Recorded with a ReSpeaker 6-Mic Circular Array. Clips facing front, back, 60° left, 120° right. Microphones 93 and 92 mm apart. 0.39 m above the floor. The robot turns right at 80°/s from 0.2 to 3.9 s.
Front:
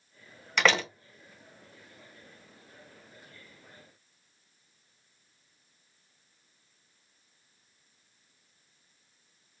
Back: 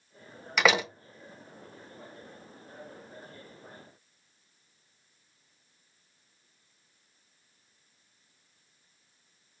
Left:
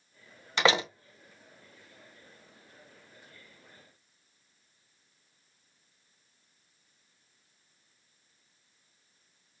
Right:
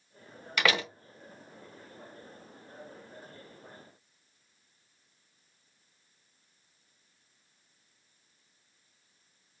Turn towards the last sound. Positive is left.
turn(degrees=0)